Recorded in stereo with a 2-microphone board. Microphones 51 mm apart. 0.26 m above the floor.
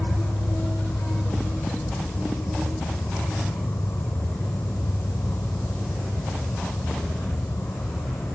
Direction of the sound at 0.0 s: 75° left (ahead or behind).